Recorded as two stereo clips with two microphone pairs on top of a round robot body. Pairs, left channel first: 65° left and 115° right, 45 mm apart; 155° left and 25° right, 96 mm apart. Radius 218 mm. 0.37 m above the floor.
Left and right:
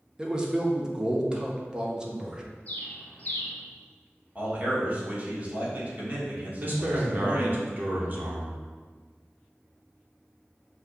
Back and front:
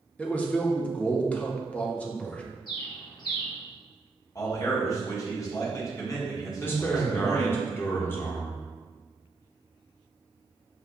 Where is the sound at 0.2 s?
145° right, 1.0 m.